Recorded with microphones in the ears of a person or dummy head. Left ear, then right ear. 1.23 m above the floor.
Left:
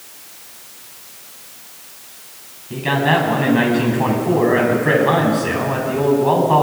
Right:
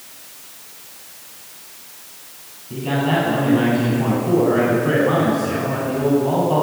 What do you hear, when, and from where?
2.7 s a man speaking: 50° left (ahead or behind), 8.5 m